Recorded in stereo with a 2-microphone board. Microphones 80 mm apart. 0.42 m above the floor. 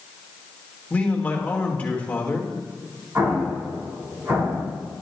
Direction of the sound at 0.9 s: 20° left (ahead or behind).